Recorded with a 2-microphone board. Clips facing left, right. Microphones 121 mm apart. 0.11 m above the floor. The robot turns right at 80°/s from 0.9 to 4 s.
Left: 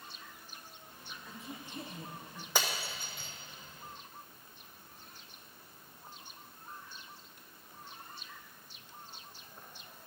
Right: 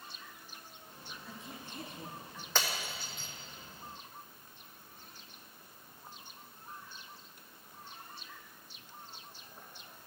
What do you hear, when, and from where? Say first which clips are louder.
1.1 s a woman speaking: left 1 dB; 25° right, 2 m; by 2.5 s 85° left, 2 m
2.5 s breaking glass: left 1 dB; 10° left (ahead or behind), 1.0 m; by 3.3 s 70° left (ahead or behind), 1.0 m